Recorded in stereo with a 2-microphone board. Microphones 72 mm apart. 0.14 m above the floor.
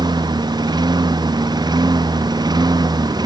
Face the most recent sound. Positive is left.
turn(degrees=-70)  # may be behind; listen again after turning